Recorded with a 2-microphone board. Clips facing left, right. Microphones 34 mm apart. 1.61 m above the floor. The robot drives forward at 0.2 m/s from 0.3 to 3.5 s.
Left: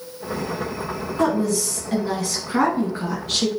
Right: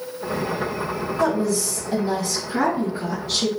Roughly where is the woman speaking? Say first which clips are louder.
Left 1 dB; left.